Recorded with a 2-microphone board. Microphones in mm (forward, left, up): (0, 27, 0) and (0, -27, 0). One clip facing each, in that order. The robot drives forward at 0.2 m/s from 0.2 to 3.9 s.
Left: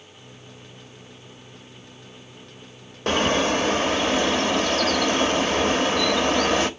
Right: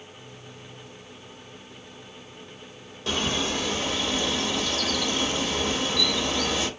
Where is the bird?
50° left (ahead or behind), 0.9 m; by 6.7 s 45° left (ahead or behind), 1.0 m.